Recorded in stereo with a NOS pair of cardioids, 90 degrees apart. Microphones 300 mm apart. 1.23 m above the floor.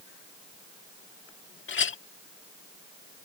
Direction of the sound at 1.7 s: 45° left.